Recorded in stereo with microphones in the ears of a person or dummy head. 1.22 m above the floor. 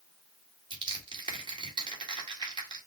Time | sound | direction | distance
0.7 | crushing | 25° right (ahead or behind) | 2.0 m